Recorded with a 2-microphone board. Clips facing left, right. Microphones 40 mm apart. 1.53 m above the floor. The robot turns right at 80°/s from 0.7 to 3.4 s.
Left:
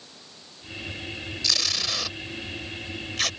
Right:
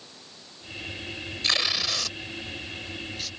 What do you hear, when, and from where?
1.4 s tape being pulled: 35° right (ahead or behind); by 3.3 s 65° left (ahead or behind)